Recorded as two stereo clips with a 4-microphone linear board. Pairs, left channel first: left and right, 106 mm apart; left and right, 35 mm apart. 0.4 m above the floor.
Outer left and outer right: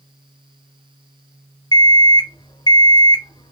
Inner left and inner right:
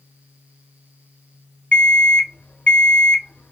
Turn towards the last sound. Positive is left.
turn(degrees=40)  # may be behind; listen again after turning